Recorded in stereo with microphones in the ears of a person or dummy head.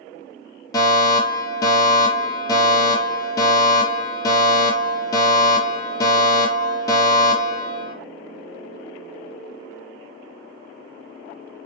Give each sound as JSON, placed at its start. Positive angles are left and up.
{"t": 0.7, "sound": "a fire alarm", "side_deg": 20, "distance_m": 4.0}